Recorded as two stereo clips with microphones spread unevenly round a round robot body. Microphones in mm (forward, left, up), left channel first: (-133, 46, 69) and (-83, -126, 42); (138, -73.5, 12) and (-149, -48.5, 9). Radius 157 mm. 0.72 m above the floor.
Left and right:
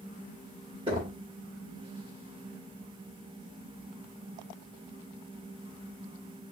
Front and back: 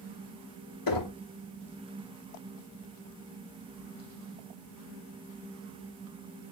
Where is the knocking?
5° right, 1.7 m.